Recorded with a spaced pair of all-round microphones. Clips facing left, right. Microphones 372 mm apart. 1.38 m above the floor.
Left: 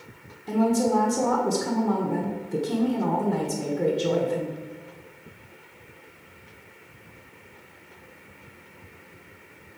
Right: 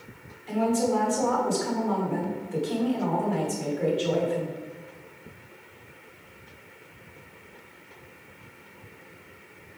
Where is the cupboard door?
No cupboard door in this recording.